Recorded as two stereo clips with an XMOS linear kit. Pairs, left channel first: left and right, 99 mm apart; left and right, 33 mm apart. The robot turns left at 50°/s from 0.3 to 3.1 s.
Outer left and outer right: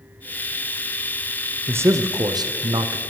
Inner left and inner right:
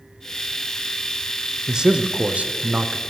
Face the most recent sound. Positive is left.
turn(degrees=-100)